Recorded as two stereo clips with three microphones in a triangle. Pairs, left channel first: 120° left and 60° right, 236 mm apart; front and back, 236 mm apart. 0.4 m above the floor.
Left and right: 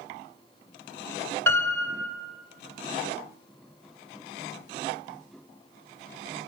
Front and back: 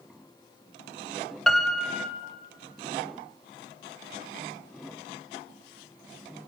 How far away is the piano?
About 0.6 m.